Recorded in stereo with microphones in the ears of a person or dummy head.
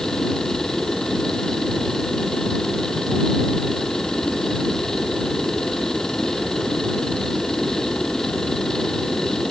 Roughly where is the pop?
I don't hear a pop.